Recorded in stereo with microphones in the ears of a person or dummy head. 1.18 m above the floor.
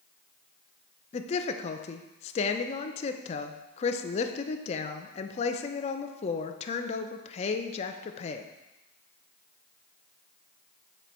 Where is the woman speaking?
35° left (ahead or behind), 0.5 m.